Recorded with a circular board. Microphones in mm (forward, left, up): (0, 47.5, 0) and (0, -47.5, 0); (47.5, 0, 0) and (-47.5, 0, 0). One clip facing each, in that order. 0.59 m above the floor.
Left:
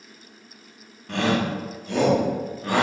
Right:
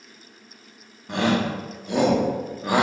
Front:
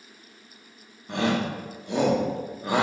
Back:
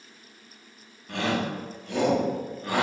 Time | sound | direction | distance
1.1 | a shout | 35° right | 0.7 m